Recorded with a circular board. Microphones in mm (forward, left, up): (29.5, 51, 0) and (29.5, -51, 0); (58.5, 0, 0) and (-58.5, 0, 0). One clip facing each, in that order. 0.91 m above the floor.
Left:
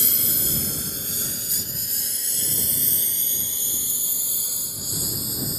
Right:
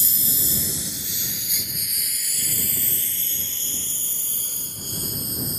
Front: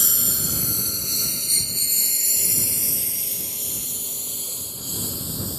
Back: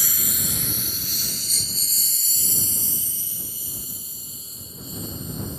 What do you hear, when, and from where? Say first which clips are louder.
0.0 s a lawn mower: left 2 dB, front 1 dB; 65° left; by 5.6 s 5° left